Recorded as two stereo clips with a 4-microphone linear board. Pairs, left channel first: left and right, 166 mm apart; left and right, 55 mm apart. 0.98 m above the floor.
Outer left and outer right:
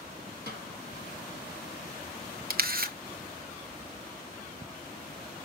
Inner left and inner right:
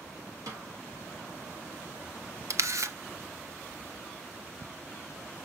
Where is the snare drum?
75° right (ahead or behind), 4 m.